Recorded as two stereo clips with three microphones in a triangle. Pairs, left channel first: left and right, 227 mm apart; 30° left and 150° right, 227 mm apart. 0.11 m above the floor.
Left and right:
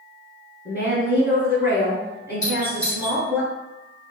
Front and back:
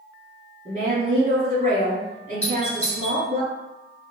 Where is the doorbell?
135° left, 1.7 m.